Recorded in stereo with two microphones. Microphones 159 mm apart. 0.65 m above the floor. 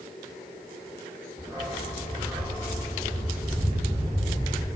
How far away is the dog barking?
About 8 m.